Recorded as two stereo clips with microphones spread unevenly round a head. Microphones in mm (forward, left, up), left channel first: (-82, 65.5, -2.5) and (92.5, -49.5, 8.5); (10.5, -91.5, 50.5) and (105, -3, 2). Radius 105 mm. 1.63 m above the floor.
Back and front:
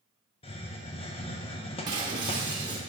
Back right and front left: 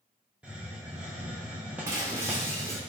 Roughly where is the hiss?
Behind.